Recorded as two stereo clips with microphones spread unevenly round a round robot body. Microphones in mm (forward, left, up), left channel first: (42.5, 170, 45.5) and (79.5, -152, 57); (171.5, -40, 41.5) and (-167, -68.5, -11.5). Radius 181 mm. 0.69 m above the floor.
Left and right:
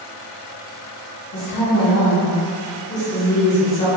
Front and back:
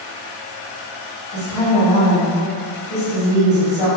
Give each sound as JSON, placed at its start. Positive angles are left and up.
{"t": 1.3, "sound": "a woman speaking", "azimuth_deg": 90, "distance_m": 1.6}